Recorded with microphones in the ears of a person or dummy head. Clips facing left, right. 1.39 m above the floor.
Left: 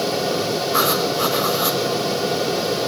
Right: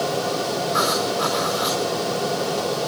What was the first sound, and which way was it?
Writing, 55° left (ahead or behind).